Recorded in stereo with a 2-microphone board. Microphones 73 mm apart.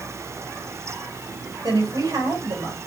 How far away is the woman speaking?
About 3.5 m.